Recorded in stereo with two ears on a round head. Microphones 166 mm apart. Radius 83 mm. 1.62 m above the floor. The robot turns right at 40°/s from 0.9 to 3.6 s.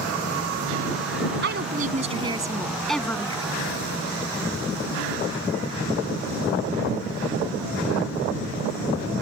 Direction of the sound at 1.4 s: 55° right.